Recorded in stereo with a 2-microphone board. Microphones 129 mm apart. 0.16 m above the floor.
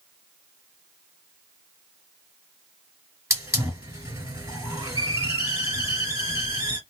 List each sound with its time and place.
3.3 s a hiss: 25° right (ahead or behind), 2.5 m